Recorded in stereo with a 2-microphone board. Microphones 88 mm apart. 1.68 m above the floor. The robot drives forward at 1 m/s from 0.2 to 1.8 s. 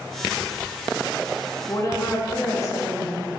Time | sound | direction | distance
1.7 | a woman speaking | 35° left (ahead or behind) | 1.8 m